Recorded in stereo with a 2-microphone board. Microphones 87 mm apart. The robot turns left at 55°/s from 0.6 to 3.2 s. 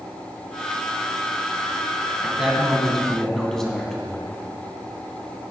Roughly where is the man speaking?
Centre.